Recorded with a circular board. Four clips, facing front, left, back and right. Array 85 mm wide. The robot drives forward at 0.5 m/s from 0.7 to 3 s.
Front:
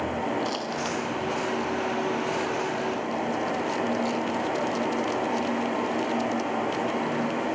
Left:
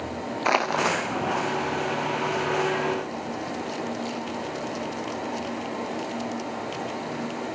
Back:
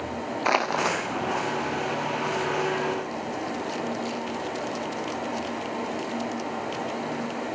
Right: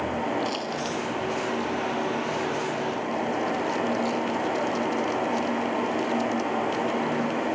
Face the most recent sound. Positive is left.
turn(degrees=135)